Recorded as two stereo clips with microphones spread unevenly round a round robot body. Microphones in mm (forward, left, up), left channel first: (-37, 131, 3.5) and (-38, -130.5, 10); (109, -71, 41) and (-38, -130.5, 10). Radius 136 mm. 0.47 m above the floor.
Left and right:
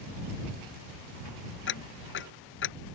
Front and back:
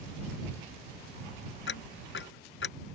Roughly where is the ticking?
Ahead left.